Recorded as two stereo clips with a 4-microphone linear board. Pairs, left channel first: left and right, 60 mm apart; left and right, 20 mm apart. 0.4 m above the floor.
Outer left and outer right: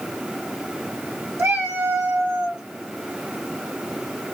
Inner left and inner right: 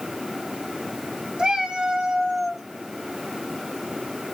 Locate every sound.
1.4 s a cat meowing: 45° right (ahead or behind), 1.4 m; by 2.6 s 10° right (ahead or behind), 0.6 m